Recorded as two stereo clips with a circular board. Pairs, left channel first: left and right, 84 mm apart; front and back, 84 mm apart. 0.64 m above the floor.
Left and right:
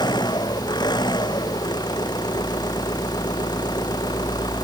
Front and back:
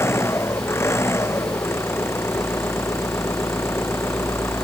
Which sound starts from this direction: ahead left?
An engine running, at 0.0 s.